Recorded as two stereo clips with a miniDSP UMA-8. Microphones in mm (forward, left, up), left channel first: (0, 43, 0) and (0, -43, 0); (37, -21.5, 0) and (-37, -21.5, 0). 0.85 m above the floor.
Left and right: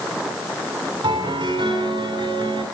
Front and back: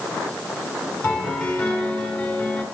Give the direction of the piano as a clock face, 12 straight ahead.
2 o'clock.